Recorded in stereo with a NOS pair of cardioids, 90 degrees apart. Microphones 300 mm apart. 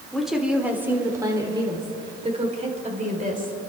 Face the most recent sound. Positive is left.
turn(degrees=-30)